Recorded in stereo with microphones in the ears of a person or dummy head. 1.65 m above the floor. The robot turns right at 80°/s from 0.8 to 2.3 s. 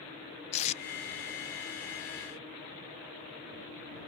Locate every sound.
0.5 s tape being pulled: 30° left (ahead or behind); by 0.8 s 35° left (ahead or behind)